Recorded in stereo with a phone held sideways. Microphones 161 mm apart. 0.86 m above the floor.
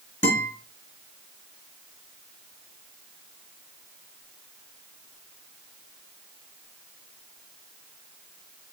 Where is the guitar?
40° left (ahead or behind), 5 m.